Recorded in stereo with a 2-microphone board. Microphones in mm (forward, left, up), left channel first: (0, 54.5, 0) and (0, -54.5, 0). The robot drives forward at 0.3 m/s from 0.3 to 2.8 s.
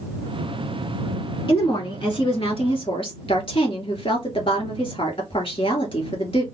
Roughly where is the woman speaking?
Left.